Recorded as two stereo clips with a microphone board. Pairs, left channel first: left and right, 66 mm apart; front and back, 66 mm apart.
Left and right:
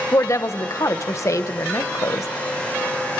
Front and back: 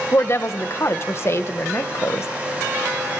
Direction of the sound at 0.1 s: 50° left.